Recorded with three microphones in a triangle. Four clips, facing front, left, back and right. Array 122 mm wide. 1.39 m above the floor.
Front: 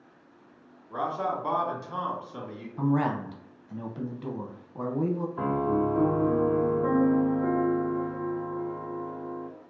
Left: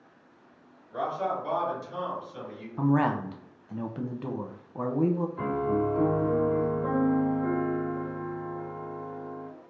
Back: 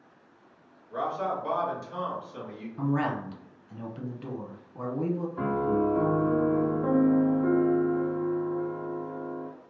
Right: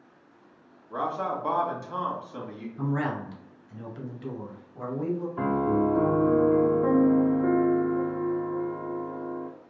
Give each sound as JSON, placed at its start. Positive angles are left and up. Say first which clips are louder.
{"t": 0.9, "sound": "a man speaking", "louder": "even, even", "azimuth_deg": -65, "distance_m": 2.0}
{"t": 2.8, "sound": "a man speaking", "louder": "left 5 dB, front 2 dB", "azimuth_deg": 70, "distance_m": 0.7}
{"t": 5.4, "sound": "a piano", "louder": "right 7 dB, even", "azimuth_deg": -105, "distance_m": 1.3}